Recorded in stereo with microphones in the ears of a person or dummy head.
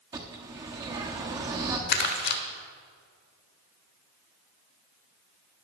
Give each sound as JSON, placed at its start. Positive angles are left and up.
{"t": 0.1, "sound": "a bird", "side_deg": -20, "distance_m": 1.2}
{"t": 1.9, "sound": "crumpling", "side_deg": 50, "distance_m": 0.9}